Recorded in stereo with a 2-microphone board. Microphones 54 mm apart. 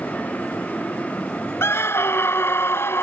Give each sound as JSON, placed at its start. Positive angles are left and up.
{"t": 1.6, "sound": "a scream", "side_deg": 50}